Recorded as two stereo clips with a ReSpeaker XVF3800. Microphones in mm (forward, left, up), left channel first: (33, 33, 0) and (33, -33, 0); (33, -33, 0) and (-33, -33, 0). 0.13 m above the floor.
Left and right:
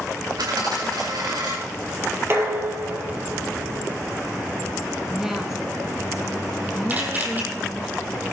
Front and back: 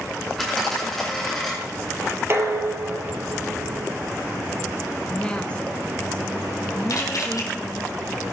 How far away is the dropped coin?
About 4 m.